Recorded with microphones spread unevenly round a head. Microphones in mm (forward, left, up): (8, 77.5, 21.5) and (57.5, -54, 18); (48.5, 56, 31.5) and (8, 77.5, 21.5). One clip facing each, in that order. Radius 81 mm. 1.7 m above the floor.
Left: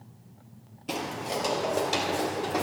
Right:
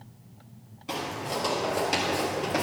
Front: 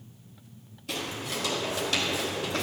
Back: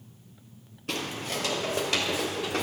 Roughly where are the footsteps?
Behind.